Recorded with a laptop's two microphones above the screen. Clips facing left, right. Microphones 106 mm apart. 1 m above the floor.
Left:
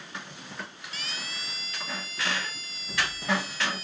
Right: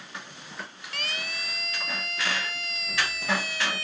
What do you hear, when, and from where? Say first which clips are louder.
0.9 s a siren: right 5 dB; 60° right (ahead or behind); by 3.8 s 70° right (ahead or behind)